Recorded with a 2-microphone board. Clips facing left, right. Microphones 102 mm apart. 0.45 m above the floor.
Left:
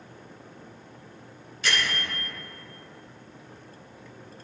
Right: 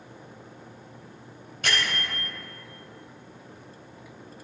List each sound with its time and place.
1.6 s a bell: 50° right (ahead or behind), 3 m